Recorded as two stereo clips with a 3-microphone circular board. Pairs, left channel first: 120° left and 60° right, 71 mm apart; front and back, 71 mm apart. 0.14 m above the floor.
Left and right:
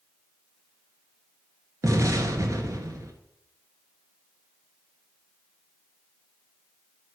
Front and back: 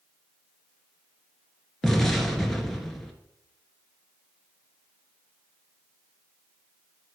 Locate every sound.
1.8 s an explosion: 85° right, 1.8 m